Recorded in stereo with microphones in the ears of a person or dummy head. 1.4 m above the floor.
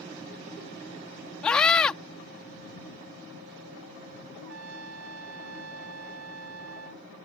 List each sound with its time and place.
1.4 s a scream: 5° left (ahead or behind)
4.4 s a trumpet: 80° right